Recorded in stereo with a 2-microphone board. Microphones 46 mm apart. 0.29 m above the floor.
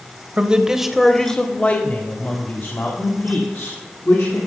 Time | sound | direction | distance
0.4 | a man speaking | 25° right (ahead or behind) | 1.0 m